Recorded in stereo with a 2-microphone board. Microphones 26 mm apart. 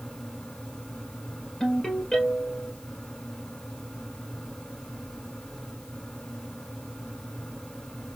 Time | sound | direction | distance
1.6 | a ringtone | 25° left (ahead or behind) | 2.5 m